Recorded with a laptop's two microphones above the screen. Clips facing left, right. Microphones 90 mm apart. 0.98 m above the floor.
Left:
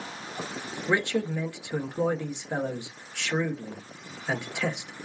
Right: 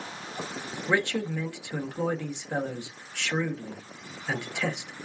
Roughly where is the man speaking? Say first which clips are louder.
Left 1 dB; centre.